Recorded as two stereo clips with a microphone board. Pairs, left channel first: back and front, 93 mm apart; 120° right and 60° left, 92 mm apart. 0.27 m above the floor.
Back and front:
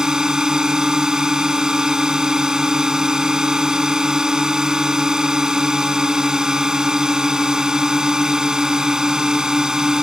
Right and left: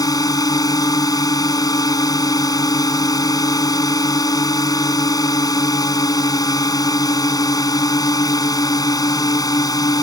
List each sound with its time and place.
0.0 s a drone: 80° right